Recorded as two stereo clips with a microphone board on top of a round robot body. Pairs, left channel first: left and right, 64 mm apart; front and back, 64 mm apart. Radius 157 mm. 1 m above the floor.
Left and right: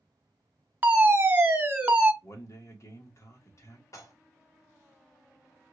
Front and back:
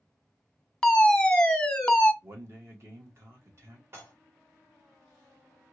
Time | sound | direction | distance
0.8 | a fire alarm | 70° right | 1.3 m
2.2 | a man speaking | 130° left | 1.7 m
3.9 | dishes clattering | 130° left | 1.4 m